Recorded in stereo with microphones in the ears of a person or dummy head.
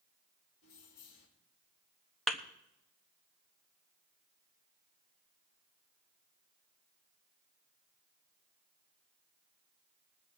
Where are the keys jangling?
55° left (ahead or behind), 3.5 m.